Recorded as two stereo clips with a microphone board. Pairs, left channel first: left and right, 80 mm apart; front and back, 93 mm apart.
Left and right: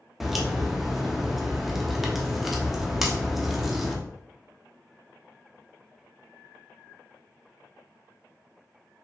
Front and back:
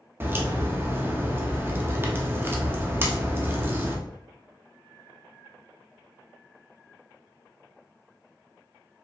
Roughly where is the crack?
Behind.